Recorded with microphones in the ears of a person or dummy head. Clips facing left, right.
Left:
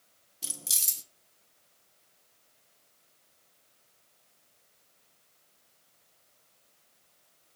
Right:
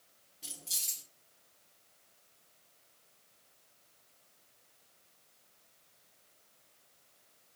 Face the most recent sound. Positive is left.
turn(degrees=65)  # may be behind; listen again after turning